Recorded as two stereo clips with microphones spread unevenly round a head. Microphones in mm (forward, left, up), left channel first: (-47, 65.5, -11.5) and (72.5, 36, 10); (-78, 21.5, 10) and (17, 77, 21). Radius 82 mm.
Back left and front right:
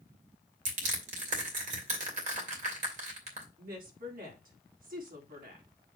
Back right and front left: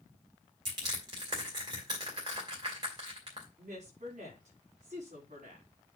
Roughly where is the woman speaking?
Ahead.